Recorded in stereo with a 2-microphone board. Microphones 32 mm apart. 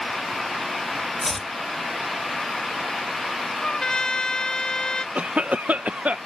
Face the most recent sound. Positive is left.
turn(degrees=-55)  # may be behind; listen again after turning